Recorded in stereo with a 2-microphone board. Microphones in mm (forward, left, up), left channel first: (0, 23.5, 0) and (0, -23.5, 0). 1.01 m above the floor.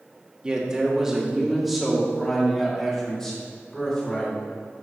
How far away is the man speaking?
About 1.5 m.